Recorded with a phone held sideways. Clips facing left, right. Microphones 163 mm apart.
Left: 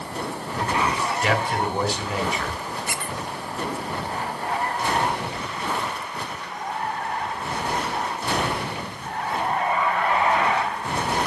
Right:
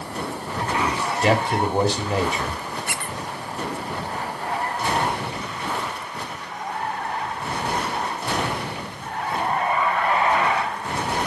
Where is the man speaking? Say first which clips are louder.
Right 3 dB; 30° right (ahead or behind), 2.5 m.